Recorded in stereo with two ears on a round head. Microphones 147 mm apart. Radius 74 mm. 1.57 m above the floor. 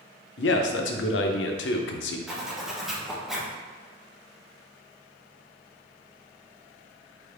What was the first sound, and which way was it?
A man speaking, 80° left.